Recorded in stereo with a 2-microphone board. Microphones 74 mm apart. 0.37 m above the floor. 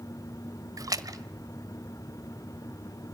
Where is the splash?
55° right (ahead or behind), 1.2 m.